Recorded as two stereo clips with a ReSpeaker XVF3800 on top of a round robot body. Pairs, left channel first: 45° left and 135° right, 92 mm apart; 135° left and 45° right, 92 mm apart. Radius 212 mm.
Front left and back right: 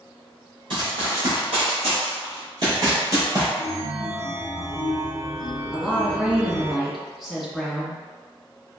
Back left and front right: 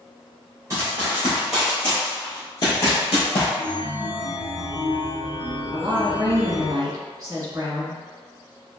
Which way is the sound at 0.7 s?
105° right.